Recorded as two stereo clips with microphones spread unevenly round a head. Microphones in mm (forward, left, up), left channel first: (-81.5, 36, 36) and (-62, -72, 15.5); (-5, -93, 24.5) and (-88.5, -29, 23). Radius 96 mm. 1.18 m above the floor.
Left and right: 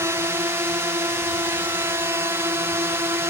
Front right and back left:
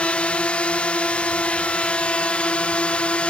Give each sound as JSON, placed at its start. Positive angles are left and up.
{"t": 0.0, "sound": "a drone", "azimuth_deg": -110}